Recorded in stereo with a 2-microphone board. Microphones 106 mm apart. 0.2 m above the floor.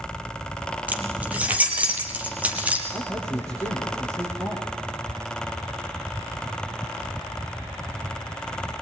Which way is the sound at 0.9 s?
10° right (ahead or behind).